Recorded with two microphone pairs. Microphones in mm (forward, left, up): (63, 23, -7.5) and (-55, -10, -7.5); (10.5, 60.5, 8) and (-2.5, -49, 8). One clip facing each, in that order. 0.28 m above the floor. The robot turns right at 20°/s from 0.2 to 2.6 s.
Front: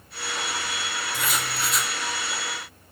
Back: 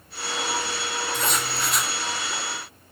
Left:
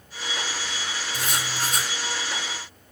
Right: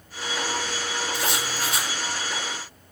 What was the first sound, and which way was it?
Writing, 90° left.